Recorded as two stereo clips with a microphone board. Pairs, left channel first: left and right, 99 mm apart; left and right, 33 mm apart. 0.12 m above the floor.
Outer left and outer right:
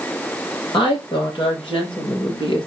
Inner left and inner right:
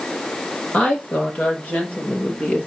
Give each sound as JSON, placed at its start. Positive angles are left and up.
{"t": 0.7, "sound": "a woman speaking", "side_deg": 55, "distance_m": 4.0}